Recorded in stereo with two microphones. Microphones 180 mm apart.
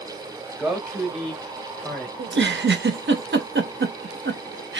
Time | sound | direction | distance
0.6 | a man speaking | 5° right (ahead or behind) | 1.0 m
2.2 | a giggle | 85° right | 0.5 m